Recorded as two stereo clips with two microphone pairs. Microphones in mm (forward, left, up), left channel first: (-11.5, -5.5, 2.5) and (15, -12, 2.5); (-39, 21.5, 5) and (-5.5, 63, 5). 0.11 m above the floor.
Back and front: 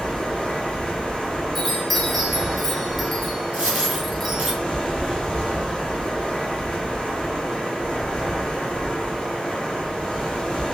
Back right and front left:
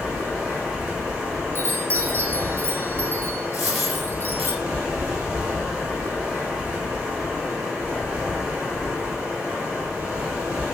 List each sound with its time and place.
0.0 s running water: 115° left, 1.5 m
1.6 s a chime: 80° left, 0.8 m
3.5 s a dropped coin: 35° right, 1.7 m